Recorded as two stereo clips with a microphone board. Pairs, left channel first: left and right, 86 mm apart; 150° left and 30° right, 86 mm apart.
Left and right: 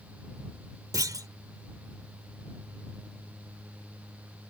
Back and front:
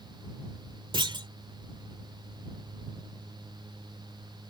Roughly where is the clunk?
Ahead right.